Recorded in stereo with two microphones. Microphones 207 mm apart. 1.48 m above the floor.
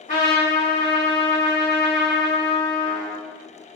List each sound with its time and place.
0.1 s a trumpet: 40° left (ahead or behind), 1.8 m